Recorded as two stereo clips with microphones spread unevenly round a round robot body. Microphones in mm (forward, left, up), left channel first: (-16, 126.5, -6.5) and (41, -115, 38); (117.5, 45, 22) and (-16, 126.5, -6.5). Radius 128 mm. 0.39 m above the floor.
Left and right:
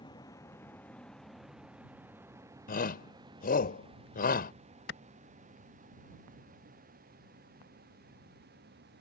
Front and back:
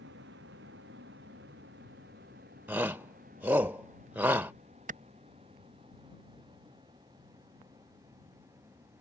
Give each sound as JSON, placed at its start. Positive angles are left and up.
{"t": 0.0, "sound": "a vehicle", "azimuth_deg": 180}
{"t": 2.7, "sound": "a shout", "azimuth_deg": 85}
{"t": 4.9, "sound": "a clap", "azimuth_deg": 140}